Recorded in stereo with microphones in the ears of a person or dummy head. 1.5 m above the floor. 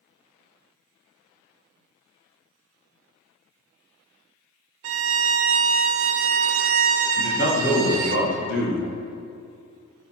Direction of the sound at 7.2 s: 60° left (ahead or behind).